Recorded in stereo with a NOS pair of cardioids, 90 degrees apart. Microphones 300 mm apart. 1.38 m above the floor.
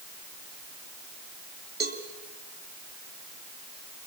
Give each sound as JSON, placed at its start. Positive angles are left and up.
{"t": 1.8, "sound": "a cowbell", "azimuth_deg": -35, "distance_m": 4.0}